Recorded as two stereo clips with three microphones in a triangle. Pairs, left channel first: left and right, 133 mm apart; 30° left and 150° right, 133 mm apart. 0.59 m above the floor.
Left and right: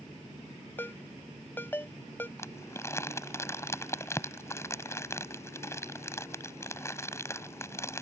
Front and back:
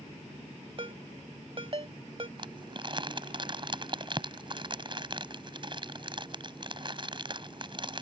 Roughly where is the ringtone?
Behind.